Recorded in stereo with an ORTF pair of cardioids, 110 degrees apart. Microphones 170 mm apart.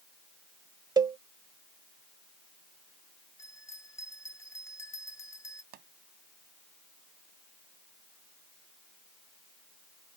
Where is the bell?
20° left.